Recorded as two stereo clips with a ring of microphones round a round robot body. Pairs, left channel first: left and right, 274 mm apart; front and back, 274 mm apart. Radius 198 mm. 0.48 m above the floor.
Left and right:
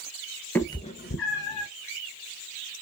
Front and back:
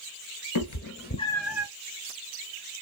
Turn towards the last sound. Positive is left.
turn(degrees=105)